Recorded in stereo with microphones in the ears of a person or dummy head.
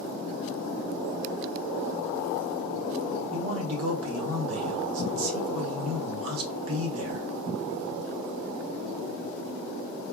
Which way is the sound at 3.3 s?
75° right (ahead or behind).